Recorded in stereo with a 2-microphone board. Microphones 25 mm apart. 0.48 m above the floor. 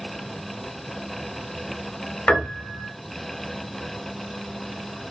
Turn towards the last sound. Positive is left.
turn(degrees=65)  # may be behind; listen again after turning